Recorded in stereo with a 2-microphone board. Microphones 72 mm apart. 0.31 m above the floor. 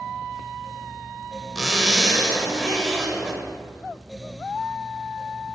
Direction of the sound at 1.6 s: Centre (ahead or behind).